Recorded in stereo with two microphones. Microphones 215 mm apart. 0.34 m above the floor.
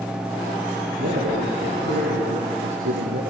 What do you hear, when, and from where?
1.0 s a man speaking: 80° right, 9 m